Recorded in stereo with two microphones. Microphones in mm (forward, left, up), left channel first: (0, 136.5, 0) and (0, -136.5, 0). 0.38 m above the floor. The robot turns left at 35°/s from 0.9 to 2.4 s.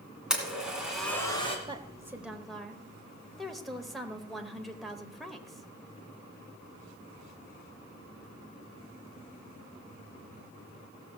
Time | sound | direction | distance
0.3 | a blender | centre (ahead or behind) | 2.5 m
1.7 | a woman speaking | 20° right (ahead or behind) | 1.2 m